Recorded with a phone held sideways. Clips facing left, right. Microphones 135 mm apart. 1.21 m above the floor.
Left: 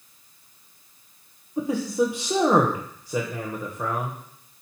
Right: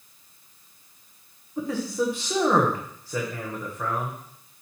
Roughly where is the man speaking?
Centre.